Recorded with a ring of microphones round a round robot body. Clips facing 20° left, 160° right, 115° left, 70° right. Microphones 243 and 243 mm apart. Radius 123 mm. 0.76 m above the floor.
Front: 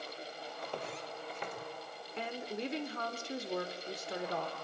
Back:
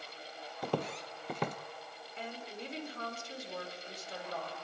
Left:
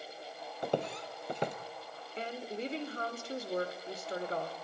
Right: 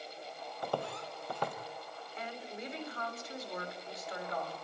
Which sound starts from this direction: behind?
Footsteps, at 0.6 s.